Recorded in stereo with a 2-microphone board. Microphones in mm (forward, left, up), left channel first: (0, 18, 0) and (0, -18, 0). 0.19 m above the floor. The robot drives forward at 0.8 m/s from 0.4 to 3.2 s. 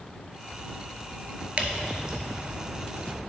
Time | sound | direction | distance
1.6 | dripping | 35° right (ahead or behind) | 0.8 m